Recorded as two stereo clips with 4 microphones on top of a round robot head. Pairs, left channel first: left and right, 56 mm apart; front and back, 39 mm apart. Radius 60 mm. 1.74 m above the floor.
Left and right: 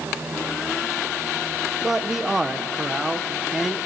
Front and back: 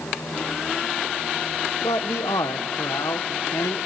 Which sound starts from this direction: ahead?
A man speaking, at 1.8 s.